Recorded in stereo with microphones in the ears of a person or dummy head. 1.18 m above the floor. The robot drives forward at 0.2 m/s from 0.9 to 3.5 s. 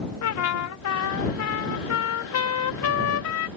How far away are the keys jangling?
No keys jangling in this recording.